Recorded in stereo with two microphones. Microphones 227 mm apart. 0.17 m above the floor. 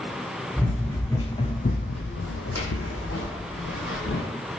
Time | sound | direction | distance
0.6 | running footsteps | centre (ahead or behind) | 1.1 m